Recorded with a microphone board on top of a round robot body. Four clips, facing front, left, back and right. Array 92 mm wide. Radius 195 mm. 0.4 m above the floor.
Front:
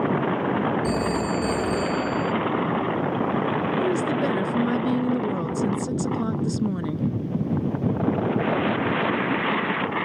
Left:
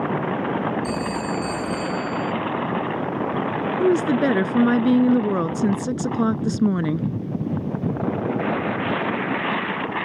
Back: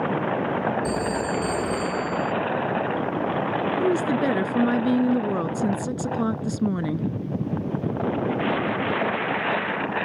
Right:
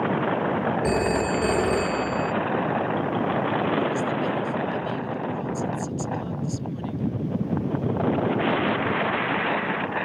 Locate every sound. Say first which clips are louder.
0.8 s a phone ringing: right 3 dB, front 1 dB; 80° right
3.8 s a woman speaking: left 7 dB, back 3 dB; 105° left